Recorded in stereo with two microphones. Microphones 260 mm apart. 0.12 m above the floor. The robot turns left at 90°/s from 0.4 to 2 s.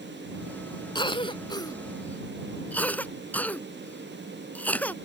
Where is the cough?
15° left (ahead or behind); by 5.0 s 5° left (ahead or behind).